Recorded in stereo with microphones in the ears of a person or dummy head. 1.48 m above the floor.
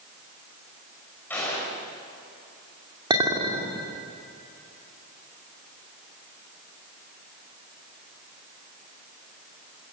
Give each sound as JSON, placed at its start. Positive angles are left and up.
{"t": 1.3, "sound": "a gunshot", "side_deg": 10, "distance_m": 6.5}
{"t": 3.1, "sound": "a clink", "side_deg": -25, "distance_m": 2.5}